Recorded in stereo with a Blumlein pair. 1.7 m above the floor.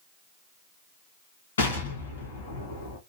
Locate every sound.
1.6 s an explosion: 70° left, 1.5 m